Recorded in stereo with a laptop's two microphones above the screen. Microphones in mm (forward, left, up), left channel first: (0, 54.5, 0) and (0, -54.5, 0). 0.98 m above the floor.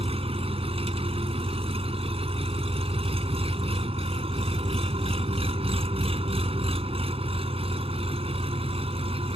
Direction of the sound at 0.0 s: 60° right (ahead or behind).